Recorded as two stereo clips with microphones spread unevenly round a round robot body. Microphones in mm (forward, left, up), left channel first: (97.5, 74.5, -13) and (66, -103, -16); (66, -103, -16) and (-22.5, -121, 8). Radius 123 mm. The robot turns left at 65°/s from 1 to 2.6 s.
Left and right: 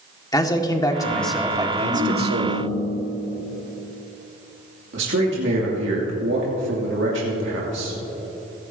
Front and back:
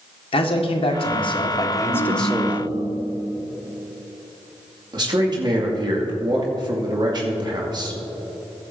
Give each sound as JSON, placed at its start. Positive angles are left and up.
{"t": 0.3, "sound": "a man speaking", "azimuth_deg": 10, "distance_m": 1.9}
{"t": 1.9, "sound": "a ringtone", "azimuth_deg": 165, "distance_m": 1.7}
{"t": 4.9, "sound": "a man speaking", "azimuth_deg": -130, "distance_m": 2.0}